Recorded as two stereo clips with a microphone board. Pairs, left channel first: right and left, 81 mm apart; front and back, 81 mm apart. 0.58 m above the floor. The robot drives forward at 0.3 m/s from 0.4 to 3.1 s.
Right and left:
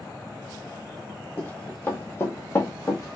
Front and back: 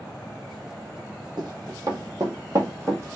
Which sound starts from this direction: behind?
Running footsteps, at 1.4 s.